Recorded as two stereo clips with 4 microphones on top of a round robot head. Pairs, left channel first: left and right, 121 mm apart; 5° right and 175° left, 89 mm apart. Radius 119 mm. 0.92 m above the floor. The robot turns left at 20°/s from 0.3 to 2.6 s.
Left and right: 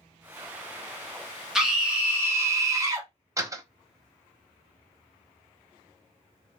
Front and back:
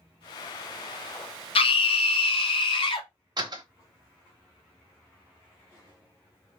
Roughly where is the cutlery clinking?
I don't hear cutlery clinking.